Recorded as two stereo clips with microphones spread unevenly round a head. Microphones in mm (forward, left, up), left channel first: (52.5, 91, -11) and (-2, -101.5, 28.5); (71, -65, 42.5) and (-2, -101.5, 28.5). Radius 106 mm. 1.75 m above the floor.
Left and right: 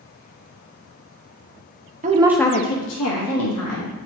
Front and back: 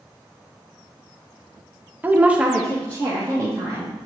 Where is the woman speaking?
80° right, 0.7 m; by 3.9 s 95° left, 2 m.